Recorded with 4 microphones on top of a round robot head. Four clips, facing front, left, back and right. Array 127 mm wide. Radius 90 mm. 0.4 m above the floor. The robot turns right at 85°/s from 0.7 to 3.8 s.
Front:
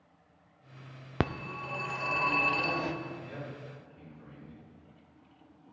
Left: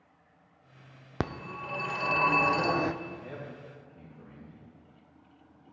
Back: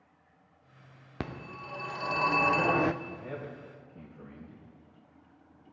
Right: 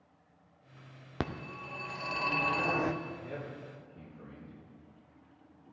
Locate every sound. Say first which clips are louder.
1.2 s a phone ringing: left 3 dB, front 6 dB; 25° left, 0.5 m; by 2.9 s 175° left, 0.5 m
3.0 s a man speaking: even, back 1 dB; 135° left, 3.5 m; by 4.7 s 160° right, 3.5 m